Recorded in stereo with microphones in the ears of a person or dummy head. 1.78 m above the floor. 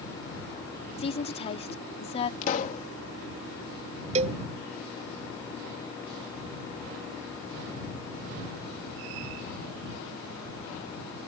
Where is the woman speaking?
35° left (ahead or behind).